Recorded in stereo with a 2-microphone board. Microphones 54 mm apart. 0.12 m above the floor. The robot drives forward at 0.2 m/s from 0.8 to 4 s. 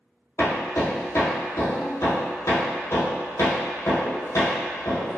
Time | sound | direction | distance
0.4 | hammering | 65° left (ahead or behind) | 1.3 m